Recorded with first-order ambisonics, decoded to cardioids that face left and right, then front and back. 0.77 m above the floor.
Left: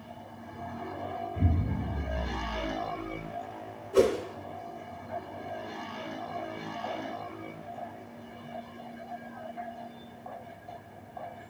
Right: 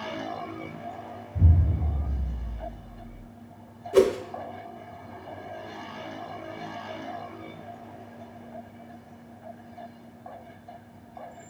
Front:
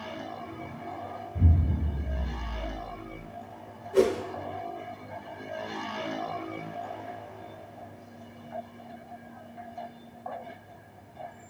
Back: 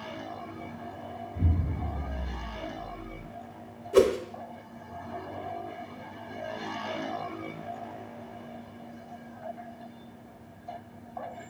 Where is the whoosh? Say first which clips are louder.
Right 3 dB, back 2 dB; 140° right, 0.5 m.